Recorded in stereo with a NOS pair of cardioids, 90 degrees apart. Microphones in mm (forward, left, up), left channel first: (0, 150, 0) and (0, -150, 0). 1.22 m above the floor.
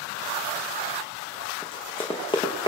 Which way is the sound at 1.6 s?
15° left.